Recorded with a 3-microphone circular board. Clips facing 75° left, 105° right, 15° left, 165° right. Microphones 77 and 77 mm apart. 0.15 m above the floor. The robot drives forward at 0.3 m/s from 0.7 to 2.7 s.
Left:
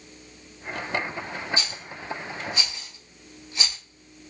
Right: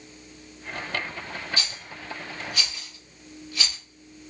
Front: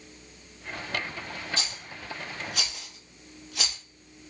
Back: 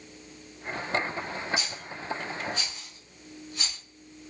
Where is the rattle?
5° left, 1.3 m; by 3.8 s 10° left, 1.0 m.